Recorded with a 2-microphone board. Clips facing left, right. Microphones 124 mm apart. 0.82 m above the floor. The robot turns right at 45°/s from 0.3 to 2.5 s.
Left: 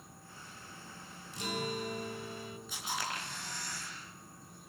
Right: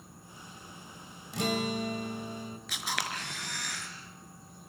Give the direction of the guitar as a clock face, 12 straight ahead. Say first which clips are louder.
Right 6 dB; 3 o'clock.